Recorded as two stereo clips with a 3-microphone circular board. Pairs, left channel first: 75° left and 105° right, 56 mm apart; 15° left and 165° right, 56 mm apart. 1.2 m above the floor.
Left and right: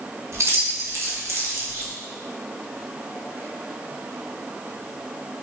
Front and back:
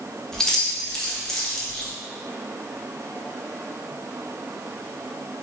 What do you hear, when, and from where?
0.3 s keys jangling: 65° right, 0.9 m